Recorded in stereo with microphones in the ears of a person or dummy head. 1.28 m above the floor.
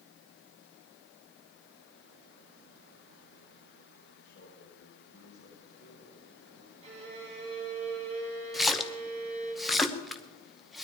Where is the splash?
10° right (ahead or behind), 1.0 m.